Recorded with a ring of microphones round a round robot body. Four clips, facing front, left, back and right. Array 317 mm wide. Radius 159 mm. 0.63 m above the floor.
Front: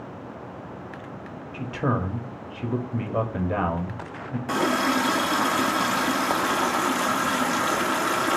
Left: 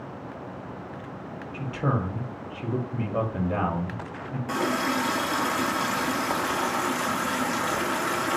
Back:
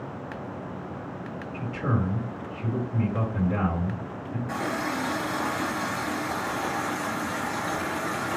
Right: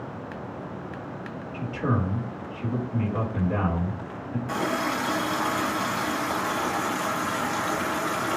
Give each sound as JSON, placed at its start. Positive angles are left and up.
{"t": 1.5, "sound": "a man speaking", "azimuth_deg": 5, "distance_m": 1.3}
{"t": 4.5, "sound": "a running tap", "azimuth_deg": 0, "distance_m": 0.7}